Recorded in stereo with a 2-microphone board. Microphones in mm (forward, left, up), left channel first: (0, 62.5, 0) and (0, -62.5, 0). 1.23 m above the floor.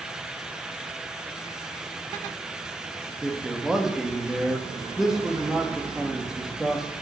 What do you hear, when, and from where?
3.2 s a man speaking: 5° right (ahead or behind), 1.5 m